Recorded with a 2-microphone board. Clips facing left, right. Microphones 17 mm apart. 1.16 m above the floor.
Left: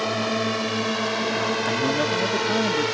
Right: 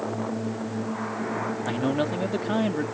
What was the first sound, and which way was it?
A drone, 75° left (ahead or behind).